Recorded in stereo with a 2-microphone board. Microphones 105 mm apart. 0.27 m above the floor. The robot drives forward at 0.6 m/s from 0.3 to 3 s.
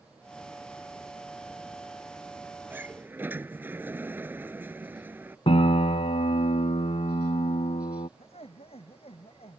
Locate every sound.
2.7 s a sliding door: 20° right (ahead or behind)
5.5 s a piano: 75° left (ahead or behind)
8.2 s laughter: 70° left (ahead or behind)